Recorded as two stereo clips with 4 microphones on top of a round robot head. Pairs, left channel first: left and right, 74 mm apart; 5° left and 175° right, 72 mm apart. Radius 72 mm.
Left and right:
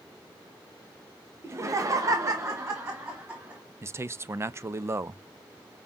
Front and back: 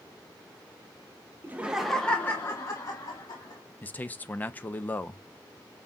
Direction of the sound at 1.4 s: 125° right.